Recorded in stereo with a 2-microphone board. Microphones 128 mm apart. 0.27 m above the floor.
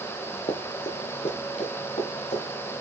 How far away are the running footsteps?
About 3 m.